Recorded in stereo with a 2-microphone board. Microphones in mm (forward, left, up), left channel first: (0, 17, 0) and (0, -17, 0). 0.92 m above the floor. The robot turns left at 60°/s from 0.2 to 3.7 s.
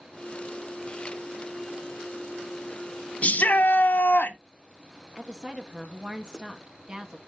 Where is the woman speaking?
25° right (ahead or behind), 1.5 m.